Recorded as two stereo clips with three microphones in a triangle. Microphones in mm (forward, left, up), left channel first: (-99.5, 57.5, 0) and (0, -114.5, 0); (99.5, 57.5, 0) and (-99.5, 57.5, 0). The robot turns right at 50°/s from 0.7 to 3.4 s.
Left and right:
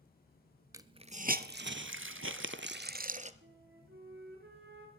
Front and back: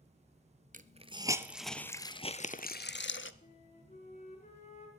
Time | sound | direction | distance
0.7 | a hiss | 135° right | 0.7 m
3.4 | a flute | 50° right | 3.5 m